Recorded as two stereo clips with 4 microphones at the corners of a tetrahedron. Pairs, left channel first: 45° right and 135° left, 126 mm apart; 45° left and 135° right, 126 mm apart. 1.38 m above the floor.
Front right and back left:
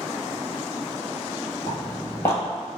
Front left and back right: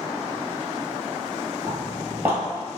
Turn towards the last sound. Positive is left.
turn(degrees=-90)